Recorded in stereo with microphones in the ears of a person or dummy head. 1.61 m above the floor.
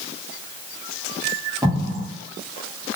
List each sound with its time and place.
1.6 s an explosion: 15° right (ahead or behind), 0.7 m